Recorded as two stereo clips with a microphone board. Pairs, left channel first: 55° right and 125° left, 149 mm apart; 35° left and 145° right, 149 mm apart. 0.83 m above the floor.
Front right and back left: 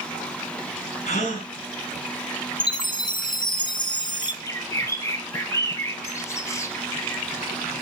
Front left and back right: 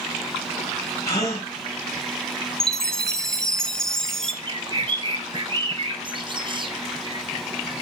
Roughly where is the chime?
Ahead right.